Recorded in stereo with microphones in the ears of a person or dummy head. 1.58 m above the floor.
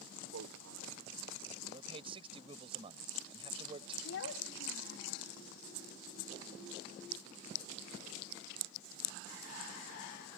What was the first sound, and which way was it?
A man speaking, 80° right.